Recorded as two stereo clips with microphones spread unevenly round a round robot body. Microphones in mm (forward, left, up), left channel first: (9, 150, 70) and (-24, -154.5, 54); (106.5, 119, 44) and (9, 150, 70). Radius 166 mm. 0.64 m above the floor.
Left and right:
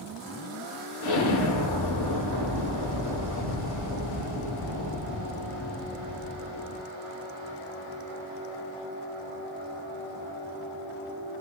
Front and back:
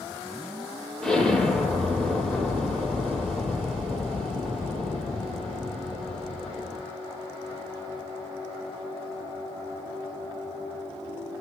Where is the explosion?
65° left, 8 m.